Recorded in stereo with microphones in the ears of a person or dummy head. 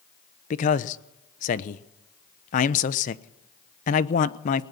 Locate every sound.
0.5 s a man speaking: 40° left (ahead or behind), 1.0 m